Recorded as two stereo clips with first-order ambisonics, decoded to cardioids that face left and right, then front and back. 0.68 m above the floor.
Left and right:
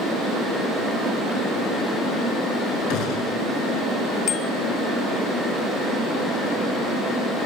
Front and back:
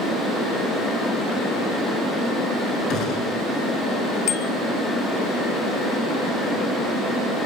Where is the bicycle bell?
40° left, 3 m.